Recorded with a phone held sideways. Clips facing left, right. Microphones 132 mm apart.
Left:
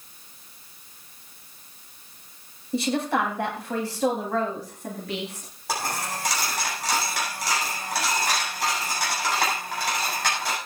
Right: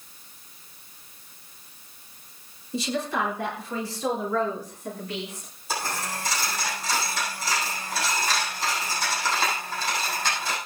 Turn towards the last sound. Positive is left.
turn(degrees=75)  # may be behind; listen again after turning